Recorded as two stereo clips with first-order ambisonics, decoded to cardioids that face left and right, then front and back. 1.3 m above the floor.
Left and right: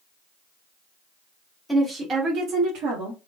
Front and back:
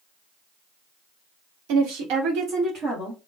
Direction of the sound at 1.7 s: 175° right.